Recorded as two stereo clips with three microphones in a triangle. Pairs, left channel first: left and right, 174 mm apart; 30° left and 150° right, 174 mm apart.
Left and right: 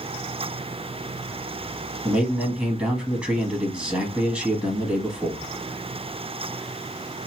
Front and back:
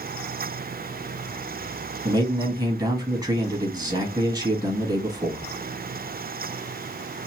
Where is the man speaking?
165° right, 1.2 m.